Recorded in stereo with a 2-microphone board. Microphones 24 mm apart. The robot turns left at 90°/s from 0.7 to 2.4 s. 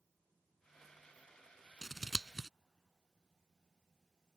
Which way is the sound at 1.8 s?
10° left (ahead or behind).